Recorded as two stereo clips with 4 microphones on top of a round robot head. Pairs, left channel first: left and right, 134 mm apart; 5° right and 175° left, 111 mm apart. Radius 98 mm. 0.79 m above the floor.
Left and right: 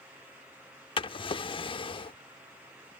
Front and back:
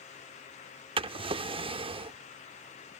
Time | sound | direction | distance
1.0 | a drawer | 140° left | ?